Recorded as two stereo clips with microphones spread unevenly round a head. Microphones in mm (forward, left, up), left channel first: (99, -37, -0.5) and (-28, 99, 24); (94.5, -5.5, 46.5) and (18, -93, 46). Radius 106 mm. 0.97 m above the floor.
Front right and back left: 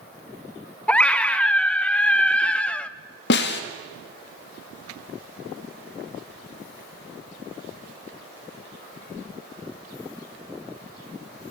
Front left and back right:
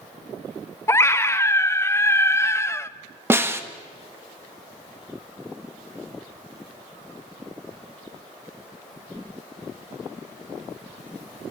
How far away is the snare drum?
About 1.9 m.